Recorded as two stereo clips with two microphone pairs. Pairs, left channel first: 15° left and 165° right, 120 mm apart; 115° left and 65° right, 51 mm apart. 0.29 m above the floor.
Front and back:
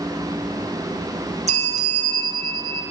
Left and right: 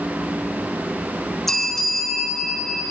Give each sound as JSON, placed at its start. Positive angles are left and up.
{"t": 1.5, "sound": "a bell", "azimuth_deg": -160, "distance_m": 0.6}